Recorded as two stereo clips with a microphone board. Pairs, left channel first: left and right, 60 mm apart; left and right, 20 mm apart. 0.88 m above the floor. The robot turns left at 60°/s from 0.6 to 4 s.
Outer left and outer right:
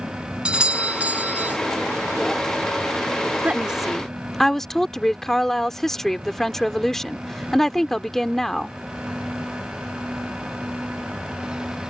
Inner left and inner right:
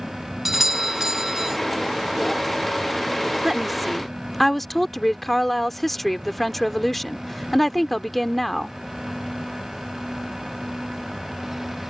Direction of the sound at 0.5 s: 15° right (ahead or behind).